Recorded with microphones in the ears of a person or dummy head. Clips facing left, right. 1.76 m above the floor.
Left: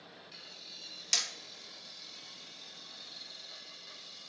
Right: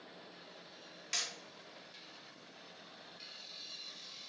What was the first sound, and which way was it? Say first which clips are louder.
Hammering: left 3 dB; 65° left (ahead or behind).